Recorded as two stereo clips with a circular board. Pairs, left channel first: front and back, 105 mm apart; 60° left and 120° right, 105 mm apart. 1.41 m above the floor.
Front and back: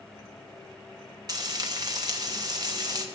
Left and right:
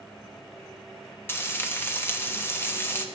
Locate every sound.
1.3 s frying: 130° left, 1.1 m